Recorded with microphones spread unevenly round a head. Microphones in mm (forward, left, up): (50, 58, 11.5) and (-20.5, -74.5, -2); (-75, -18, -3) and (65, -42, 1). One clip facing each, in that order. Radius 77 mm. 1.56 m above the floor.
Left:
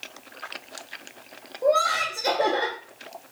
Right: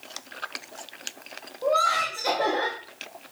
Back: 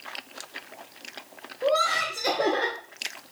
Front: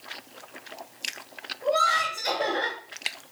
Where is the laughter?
130° left, 0.7 m.